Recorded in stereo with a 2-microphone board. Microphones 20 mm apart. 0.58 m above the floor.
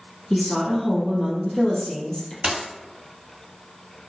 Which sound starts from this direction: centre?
A woman speaking, at 0.3 s.